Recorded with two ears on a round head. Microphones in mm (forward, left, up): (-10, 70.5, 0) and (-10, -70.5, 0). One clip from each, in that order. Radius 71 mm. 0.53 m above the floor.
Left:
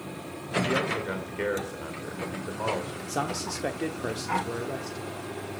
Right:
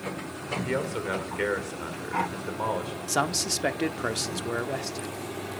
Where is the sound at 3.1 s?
35° right (ahead or behind), 0.8 m.